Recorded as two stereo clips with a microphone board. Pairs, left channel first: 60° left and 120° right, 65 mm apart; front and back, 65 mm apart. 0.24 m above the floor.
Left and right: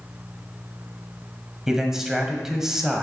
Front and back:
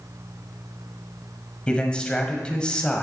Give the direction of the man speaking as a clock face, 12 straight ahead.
2 o'clock.